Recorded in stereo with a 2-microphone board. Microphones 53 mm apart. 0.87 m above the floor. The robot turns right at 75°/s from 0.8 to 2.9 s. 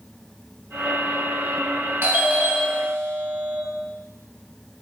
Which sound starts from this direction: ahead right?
A doorbell, at 2.0 s.